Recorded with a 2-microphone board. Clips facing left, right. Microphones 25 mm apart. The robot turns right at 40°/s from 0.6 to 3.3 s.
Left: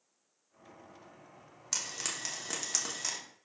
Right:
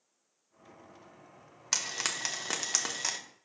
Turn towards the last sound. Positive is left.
turn(degrees=-35)